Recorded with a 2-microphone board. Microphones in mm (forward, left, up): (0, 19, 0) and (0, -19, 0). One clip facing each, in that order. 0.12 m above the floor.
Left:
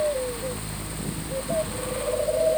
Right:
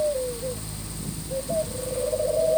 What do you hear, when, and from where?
Only background noise.